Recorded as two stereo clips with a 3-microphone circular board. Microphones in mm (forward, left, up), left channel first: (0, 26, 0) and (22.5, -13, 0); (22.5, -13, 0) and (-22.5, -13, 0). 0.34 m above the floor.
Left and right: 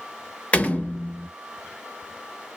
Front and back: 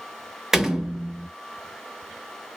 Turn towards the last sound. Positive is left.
turn(degrees=110)